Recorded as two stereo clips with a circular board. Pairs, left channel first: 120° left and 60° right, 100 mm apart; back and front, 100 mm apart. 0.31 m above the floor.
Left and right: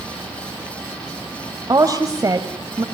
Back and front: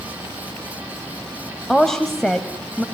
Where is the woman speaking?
95° right, 1.4 m.